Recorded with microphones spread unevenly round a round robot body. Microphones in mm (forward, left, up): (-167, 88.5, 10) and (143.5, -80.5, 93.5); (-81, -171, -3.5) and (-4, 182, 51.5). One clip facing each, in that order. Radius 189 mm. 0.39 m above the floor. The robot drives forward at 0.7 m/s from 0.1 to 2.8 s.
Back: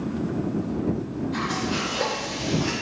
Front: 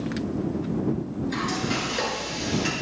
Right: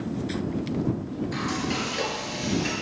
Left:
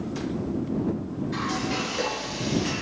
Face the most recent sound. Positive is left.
turn(degrees=-45)